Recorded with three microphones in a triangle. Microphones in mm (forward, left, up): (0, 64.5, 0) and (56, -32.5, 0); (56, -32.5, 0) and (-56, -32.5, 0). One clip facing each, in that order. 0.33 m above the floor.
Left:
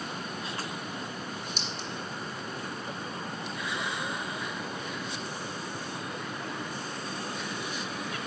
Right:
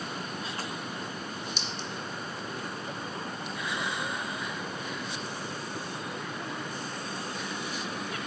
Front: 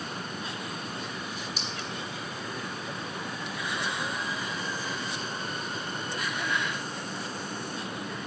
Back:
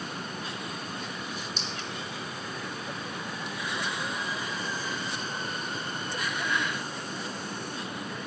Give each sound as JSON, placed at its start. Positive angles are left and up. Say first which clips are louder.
{"t": 1.6, "sound": "a clink", "louder": "even, even", "azimuth_deg": 85, "distance_m": 2.5}